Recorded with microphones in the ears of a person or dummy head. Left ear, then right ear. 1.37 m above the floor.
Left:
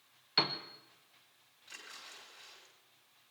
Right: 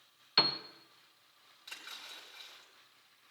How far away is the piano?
About 0.8 m.